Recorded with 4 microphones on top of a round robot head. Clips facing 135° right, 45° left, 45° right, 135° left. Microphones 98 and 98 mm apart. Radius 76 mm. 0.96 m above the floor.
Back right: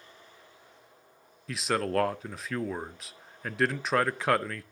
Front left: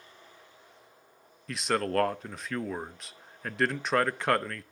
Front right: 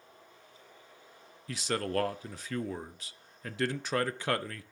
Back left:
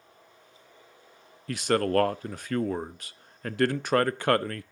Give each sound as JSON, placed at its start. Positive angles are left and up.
{"t": 1.5, "sound": "a man speaking", "azimuth_deg": 135, "distance_m": 0.5}